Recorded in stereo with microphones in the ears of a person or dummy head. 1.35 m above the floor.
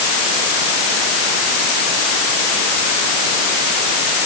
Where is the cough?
I don't hear a cough.